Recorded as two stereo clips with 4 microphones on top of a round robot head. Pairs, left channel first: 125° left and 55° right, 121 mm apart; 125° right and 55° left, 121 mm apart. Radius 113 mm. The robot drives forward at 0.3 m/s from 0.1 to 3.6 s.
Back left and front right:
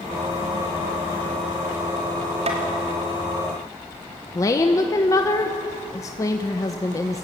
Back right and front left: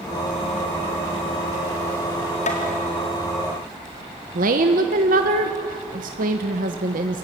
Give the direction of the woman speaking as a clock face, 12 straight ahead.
10 o'clock.